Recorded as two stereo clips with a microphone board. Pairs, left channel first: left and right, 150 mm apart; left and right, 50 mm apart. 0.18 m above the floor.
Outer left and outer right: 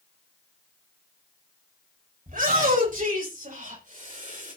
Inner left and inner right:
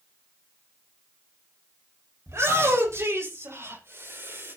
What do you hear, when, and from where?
2.3 s a shout: 65° right (ahead or behind), 8 m; by 4.5 s 60° right (ahead or behind), 6 m